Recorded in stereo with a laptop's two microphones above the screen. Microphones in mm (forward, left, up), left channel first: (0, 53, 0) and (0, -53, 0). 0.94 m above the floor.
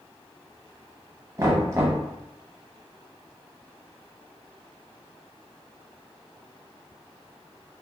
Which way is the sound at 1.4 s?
25° right (ahead or behind).